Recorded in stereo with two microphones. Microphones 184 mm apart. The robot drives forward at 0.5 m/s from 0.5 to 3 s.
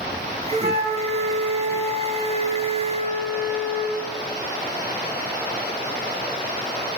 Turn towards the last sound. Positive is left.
turn(degrees=-35)  # may be behind; listen again after turning